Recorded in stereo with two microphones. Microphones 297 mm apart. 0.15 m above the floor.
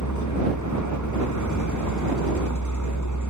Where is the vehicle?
75° left (ahead or behind).